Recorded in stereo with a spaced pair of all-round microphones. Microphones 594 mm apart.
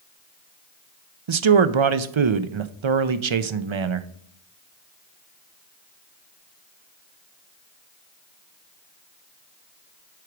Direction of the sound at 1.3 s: 55° right (ahead or behind).